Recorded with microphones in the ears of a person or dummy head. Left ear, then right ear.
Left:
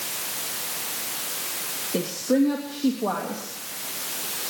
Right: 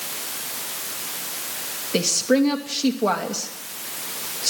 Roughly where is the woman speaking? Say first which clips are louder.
Right 4 dB; right.